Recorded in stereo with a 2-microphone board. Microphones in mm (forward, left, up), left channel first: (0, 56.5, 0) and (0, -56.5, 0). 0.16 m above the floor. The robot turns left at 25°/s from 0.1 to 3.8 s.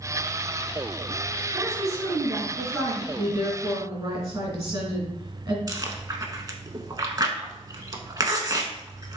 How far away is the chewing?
About 0.7 m.